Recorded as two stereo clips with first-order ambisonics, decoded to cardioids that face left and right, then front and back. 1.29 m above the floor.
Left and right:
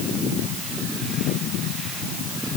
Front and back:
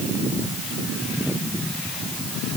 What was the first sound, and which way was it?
Only background noise.